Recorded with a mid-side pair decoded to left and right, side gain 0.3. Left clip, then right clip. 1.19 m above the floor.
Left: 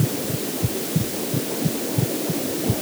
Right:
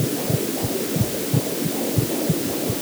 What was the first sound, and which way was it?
Only background noise.